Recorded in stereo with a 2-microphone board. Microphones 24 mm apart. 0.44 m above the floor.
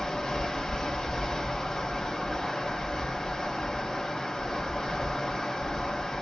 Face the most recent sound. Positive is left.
turn(degrees=25)  # may be behind; listen again after turning